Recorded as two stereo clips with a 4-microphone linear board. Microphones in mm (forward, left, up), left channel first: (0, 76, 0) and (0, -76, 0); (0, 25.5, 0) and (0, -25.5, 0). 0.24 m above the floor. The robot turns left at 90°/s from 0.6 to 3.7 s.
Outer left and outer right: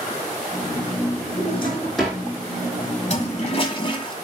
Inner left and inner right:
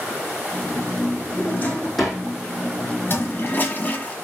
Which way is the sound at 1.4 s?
55° left.